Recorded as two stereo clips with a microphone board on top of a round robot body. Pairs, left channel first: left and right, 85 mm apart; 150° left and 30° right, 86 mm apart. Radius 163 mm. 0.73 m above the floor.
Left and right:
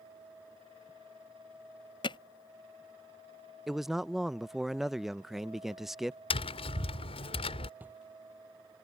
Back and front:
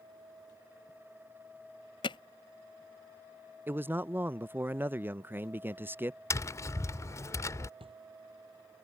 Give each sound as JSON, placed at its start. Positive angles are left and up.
{"t": 2.0, "sound": "hammering", "azimuth_deg": 120}
{"t": 3.7, "sound": "a man speaking", "azimuth_deg": -10}
{"t": 6.3, "sound": "tapping", "azimuth_deg": 95}
{"t": 7.8, "sound": "a drawer", "azimuth_deg": -20}